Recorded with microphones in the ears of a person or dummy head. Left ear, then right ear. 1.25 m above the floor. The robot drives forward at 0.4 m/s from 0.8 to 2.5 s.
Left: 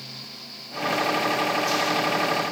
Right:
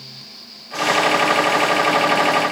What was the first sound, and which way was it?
Only background noise.